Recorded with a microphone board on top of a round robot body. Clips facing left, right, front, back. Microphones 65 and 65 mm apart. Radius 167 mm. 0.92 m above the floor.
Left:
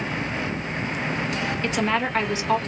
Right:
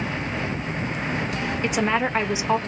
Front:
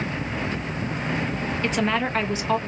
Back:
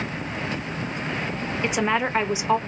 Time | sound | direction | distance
1.6 | a woman speaking | 130° right | 0.9 m